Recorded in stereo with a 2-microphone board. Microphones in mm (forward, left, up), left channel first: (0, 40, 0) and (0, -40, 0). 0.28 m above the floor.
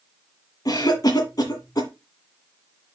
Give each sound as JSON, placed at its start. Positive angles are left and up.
{"t": 0.7, "sound": "a cough", "side_deg": 50, "distance_m": 2.5}